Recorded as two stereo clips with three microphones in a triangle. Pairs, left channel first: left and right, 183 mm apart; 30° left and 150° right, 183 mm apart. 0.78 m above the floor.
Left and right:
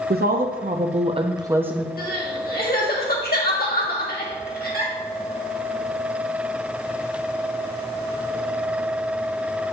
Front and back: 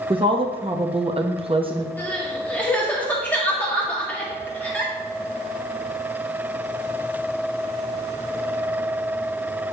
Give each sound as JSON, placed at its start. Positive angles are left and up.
{"t": 0.1, "sound": "a woman speaking", "azimuth_deg": -90, "distance_m": 1.0}
{"t": 2.0, "sound": "crying", "azimuth_deg": 110, "distance_m": 1.5}